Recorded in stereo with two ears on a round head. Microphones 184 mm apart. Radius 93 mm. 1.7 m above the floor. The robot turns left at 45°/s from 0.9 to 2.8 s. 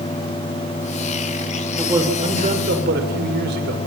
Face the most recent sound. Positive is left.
turn(degrees=-50)